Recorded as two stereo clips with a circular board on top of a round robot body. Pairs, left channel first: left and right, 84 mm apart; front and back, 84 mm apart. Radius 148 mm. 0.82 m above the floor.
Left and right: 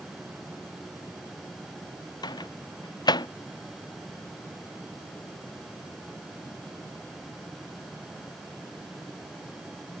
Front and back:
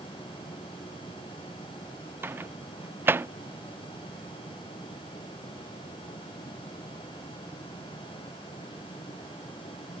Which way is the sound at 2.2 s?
115° left.